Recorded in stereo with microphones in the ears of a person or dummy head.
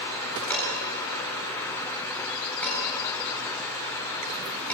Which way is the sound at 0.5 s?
10° left (ahead or behind).